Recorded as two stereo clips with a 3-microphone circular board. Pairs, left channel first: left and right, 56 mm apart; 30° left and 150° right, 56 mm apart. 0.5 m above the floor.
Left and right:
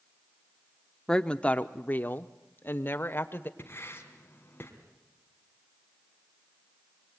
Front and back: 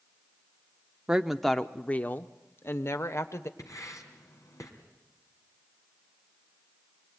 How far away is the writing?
About 3.5 m.